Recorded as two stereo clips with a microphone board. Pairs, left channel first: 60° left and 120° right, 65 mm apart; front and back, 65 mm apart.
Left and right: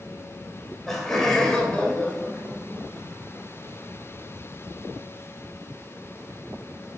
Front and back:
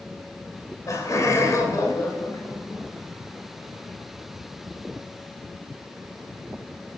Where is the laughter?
25° right, 2.5 m; by 2.9 s 5° left, 1.9 m.